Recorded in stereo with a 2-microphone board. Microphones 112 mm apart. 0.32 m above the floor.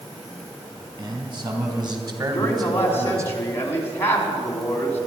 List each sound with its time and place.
1.0 s a man speaking: 45° right (ahead or behind), 3 m; by 3.3 s 25° right (ahead or behind), 1.1 m
2.3 s a man speaking: 20° left (ahead or behind), 3.5 m